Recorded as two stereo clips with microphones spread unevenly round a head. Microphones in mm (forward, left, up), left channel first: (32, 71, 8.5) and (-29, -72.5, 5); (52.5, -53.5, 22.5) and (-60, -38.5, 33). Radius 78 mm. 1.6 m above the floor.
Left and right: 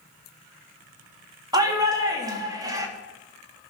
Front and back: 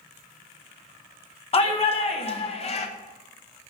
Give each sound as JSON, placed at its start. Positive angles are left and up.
{"t": 1.5, "sound": "a shout", "azimuth_deg": -45, "distance_m": 3.5}